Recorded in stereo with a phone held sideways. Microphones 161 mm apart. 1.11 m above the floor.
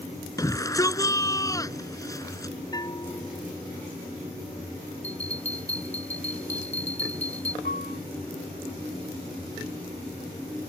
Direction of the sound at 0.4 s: 20° left (ahead or behind).